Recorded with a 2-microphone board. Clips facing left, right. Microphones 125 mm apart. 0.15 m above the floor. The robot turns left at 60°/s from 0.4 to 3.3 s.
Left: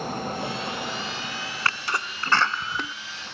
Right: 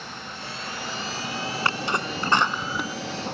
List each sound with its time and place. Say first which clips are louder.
0.0 s a vehicle: left 9 dB; 40° left; by 3.3 s 135° right
1.6 s a sneeze: right 2 dB; 20° right (ahead or behind); by 3.0 s 5° right (ahead or behind)